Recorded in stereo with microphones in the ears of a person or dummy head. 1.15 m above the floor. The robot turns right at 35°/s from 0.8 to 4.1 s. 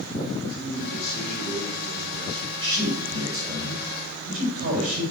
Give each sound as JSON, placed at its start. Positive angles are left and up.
{"t": 0.5, "sound": "a man speaking", "azimuth_deg": 65, "distance_m": 5.0}
{"t": 2.6, "sound": "a man speaking", "azimuth_deg": 170, "distance_m": 4.0}